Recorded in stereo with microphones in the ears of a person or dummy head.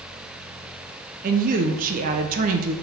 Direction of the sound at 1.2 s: 45° right (ahead or behind).